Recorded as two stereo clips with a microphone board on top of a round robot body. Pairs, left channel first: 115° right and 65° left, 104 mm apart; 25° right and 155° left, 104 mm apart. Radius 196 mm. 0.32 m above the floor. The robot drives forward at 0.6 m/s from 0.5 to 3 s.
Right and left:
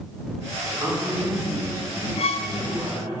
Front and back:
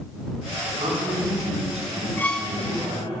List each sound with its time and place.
0.6 s a man speaking: 130° left, 3 m; by 3.2 s 145° left, 4 m
2.2 s a violin: 90° right, 0.5 m; by 2.5 s 120° right, 0.6 m